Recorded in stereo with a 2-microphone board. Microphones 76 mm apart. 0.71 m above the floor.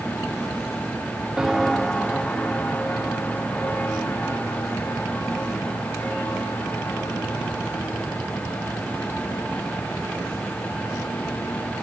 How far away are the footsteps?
About 0.9 m.